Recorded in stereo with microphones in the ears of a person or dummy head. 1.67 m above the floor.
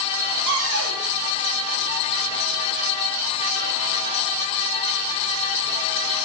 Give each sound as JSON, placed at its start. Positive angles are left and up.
{"t": 0.5, "sound": "a cupboard door", "side_deg": -75, "distance_m": 3.0}